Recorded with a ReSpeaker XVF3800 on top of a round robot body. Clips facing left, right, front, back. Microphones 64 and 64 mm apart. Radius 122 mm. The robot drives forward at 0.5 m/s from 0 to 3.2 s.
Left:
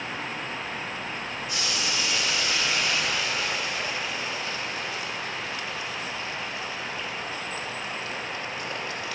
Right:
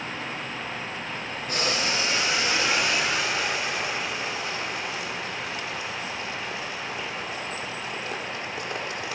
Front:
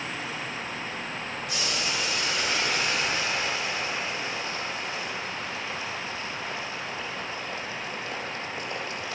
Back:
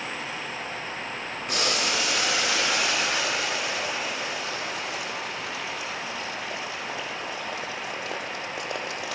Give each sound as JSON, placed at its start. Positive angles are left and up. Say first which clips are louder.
{"t": 1.5, "sound": "boiling", "louder": "right 5 dB, back 5 dB", "azimuth_deg": -145, "distance_m": 0.6}